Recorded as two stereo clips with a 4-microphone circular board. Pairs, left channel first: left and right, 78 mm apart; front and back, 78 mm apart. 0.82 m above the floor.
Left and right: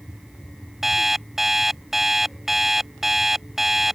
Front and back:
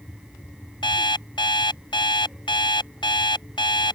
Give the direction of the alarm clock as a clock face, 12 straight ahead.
12 o'clock.